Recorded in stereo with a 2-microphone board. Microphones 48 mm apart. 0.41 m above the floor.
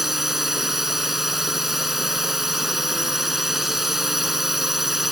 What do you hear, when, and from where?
0.0 s a drone: 10° right (ahead or behind)